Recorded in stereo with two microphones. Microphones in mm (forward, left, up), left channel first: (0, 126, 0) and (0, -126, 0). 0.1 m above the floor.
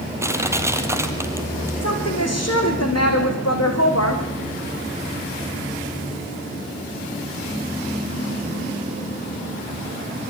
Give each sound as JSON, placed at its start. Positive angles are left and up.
{"t": 0.2, "sound": "crushing", "side_deg": -10, "distance_m": 2.0}
{"t": 1.8, "sound": "a woman speaking", "side_deg": 70, "distance_m": 6.0}